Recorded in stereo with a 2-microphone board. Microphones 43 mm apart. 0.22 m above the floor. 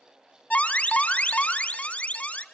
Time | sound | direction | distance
0.5 | an alarm | 35° left (ahead or behind) | 1.3 m